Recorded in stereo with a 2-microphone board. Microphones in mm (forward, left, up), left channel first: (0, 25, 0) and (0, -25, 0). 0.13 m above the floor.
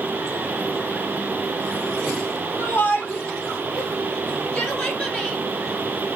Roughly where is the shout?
Left.